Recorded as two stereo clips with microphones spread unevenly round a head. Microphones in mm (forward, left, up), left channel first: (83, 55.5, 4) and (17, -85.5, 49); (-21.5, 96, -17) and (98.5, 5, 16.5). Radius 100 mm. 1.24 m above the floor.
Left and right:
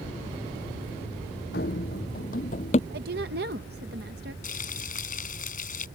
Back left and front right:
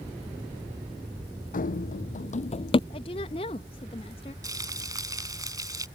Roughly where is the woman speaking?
Behind.